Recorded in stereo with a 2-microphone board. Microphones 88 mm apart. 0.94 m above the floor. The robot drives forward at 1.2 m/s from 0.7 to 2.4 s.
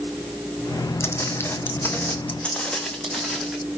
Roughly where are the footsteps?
Left.